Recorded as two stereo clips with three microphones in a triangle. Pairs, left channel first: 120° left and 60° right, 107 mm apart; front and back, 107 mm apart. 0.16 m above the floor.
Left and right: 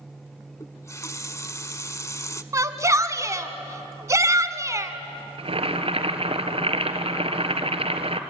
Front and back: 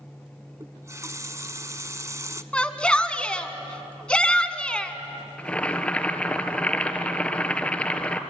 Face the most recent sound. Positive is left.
turn(degrees=-80)